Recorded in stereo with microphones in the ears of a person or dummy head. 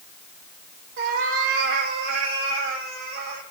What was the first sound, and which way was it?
A cat meowing, 70° right (ahead or behind).